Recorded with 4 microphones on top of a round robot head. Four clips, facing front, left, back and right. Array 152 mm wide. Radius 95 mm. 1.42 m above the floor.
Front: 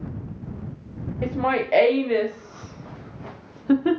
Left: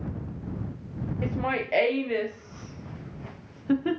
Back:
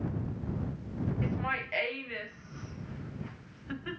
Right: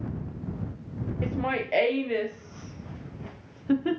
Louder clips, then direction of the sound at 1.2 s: Even, front 11 dB; 5° right.